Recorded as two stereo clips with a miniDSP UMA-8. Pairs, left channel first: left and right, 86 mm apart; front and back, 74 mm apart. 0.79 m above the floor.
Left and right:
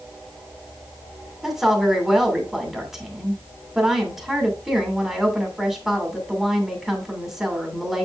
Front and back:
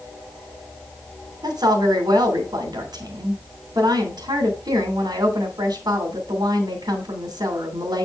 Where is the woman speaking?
175° right, 2.5 m.